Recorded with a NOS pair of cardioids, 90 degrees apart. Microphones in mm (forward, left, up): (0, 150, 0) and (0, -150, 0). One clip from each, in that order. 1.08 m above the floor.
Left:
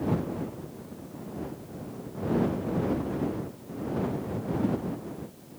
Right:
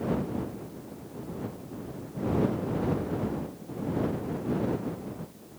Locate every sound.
Only background noise.